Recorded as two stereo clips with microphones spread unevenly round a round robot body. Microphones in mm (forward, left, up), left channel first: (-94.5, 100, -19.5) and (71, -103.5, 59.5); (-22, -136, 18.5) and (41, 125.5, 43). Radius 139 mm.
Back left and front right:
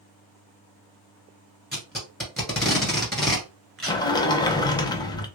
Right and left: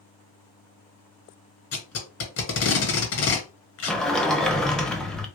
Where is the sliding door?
175° left, 0.6 m.